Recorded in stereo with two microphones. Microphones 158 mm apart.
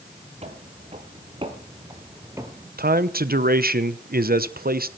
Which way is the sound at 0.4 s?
45° right (ahead or behind).